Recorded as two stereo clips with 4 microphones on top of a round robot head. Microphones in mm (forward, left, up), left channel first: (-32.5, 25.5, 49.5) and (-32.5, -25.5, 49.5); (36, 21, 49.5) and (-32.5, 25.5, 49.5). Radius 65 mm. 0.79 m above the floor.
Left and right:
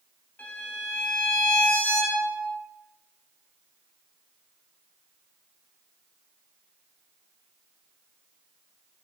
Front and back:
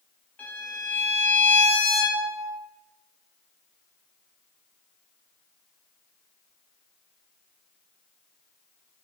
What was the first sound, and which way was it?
A violin, 55° left.